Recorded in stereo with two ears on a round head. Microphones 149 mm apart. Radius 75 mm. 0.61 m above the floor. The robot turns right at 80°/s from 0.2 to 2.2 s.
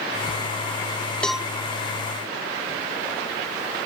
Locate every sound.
1.2 s a cowbell: 5° left (ahead or behind); by 1.5 s 15° right (ahead or behind)